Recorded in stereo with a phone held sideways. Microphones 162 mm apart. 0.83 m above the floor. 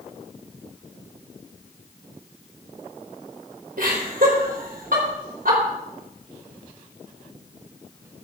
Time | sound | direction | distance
3.8 | laughter | 65° right (ahead or behind) | 3.5 m